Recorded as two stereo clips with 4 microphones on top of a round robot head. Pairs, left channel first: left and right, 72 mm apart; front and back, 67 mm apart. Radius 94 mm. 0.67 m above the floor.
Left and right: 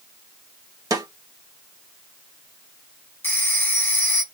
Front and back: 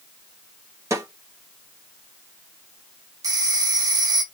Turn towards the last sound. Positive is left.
turn(degrees=150)